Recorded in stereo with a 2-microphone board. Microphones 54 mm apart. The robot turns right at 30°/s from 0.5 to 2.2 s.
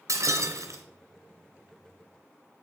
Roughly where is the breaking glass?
Right.